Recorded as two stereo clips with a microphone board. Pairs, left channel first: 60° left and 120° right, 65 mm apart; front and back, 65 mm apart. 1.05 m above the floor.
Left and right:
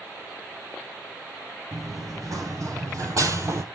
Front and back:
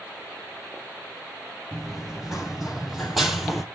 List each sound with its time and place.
1.7 s running footsteps: 95° right, 3.5 m; by 3.6 s 90° right, 1.7 m